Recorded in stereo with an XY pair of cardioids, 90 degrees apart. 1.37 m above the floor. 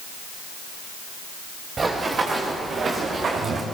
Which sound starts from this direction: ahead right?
Running footsteps, at 1.8 s.